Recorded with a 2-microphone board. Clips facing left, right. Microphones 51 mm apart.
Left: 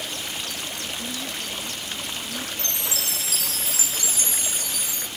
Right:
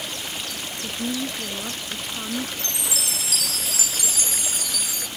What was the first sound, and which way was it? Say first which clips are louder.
A woman speaking: right 9 dB; 35° right (ahead or behind).